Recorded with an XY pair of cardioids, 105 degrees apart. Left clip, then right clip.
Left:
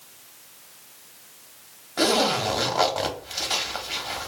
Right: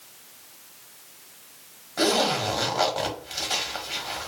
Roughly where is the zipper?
Ahead.